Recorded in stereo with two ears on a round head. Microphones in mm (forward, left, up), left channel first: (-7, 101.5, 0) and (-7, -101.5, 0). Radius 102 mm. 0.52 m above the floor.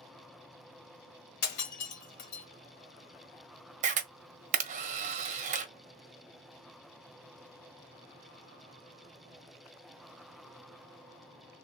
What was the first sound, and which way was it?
Breaking glass, 80° left.